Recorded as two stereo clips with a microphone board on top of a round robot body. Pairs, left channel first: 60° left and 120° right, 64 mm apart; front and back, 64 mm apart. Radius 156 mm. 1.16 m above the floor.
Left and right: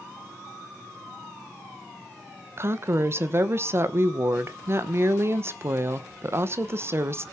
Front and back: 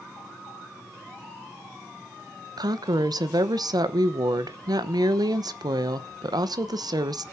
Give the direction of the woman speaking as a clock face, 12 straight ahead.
6 o'clock.